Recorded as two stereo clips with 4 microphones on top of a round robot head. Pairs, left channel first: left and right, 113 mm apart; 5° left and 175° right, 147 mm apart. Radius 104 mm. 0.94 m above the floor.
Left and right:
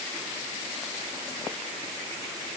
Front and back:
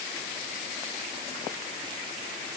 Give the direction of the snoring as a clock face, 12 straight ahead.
No snoring in this recording.